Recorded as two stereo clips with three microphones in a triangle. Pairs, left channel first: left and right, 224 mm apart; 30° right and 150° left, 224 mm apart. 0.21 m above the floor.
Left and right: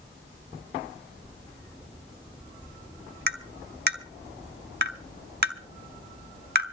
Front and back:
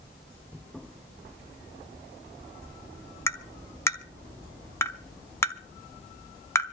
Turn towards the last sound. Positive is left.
turn(degrees=-105)